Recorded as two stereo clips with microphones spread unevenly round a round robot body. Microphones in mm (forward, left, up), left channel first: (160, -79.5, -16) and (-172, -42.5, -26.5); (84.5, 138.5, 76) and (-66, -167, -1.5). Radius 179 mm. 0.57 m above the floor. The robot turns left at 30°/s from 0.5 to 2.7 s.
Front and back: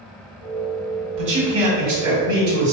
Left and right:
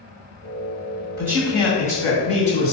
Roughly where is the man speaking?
Behind.